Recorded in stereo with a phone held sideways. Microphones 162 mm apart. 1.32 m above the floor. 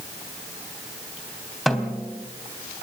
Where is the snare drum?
Centre (ahead or behind), 3.5 m.